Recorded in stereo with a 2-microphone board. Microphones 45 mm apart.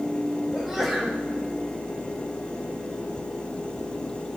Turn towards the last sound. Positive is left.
turn(degrees=0)  # may be behind; listen again after turning